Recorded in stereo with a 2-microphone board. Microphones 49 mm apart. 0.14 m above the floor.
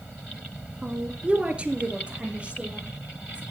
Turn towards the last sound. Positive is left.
turn(degrees=-20)  # may be behind; listen again after turning